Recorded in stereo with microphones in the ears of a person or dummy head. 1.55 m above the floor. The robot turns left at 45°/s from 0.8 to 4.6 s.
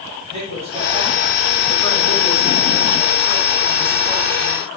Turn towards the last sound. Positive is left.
turn(degrees=45)